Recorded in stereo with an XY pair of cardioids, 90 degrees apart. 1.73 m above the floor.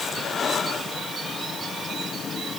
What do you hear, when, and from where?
Only background noise.